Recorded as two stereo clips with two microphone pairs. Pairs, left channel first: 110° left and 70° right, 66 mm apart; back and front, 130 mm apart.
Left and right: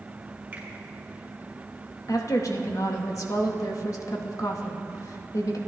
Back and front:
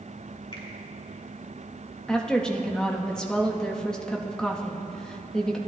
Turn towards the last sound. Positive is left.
turn(degrees=95)